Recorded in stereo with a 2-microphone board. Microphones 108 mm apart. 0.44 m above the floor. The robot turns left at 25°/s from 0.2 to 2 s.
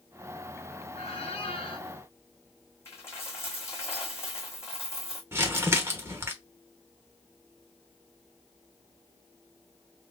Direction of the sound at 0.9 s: 75° left (ahead or behind).